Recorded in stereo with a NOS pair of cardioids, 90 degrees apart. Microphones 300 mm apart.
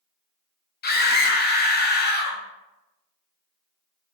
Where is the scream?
35° left, 0.7 m.